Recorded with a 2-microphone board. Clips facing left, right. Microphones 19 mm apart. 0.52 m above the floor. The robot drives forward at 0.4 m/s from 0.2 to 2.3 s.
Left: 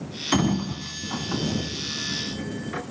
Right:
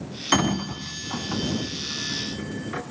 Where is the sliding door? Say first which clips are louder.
Right 1 dB; 20° right (ahead or behind), 0.6 m; by 2.8 s 10° right (ahead or behind), 1.4 m.